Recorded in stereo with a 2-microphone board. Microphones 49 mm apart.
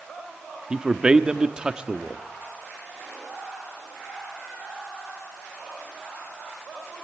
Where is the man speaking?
20° right (ahead or behind), 1.2 m.